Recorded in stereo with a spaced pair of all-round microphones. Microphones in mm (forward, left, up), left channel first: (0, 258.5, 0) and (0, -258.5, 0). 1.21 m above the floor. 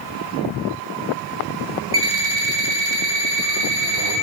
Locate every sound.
1.9 s an alarm clock: 75° right (ahead or behind), 1.3 m